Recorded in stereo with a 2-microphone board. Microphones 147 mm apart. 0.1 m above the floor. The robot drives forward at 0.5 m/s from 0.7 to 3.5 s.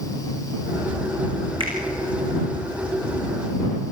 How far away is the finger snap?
About 6.5 m.